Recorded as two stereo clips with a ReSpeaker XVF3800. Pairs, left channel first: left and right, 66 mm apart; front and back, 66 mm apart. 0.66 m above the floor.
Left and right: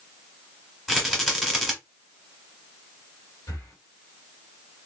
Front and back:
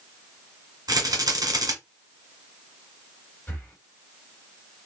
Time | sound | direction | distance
0.9 | a rattle | 175° left | 1.6 m
3.5 | breathing | 60° left | 1.3 m